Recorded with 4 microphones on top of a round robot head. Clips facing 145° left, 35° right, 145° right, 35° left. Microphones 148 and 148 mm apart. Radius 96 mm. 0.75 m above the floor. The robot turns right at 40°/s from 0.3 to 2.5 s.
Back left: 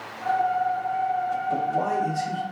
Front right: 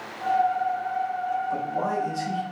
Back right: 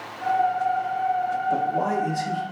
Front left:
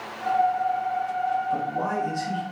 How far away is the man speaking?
About 0.9 m.